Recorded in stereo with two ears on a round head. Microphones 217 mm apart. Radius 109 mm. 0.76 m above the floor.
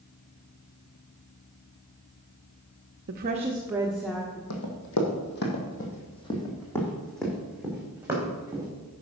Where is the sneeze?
I don't hear a sneeze.